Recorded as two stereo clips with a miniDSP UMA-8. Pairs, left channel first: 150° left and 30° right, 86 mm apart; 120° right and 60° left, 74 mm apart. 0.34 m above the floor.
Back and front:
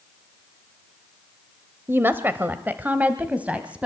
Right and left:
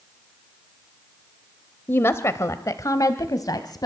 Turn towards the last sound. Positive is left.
turn(degrees=-105)